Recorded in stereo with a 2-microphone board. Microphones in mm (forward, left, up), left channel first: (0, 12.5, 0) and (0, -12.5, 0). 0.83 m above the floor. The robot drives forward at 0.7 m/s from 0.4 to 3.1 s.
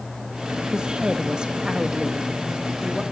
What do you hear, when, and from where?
0.7 s a woman speaking: 40° right (ahead or behind), 1.0 m; by 3.0 s 20° right (ahead or behind), 1.6 m